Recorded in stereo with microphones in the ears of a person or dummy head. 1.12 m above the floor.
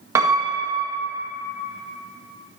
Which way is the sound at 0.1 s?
15° right (ahead or behind).